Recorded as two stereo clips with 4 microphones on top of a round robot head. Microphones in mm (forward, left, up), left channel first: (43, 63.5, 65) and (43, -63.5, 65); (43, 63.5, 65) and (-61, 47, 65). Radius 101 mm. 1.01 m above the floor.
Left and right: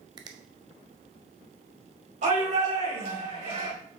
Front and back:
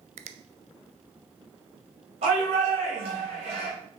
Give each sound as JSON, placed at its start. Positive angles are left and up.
{"t": 0.2, "sound": "a finger snap", "azimuth_deg": -155, "distance_m": 0.6}
{"t": 2.2, "sound": "a shout", "azimuth_deg": -130, "distance_m": 4.5}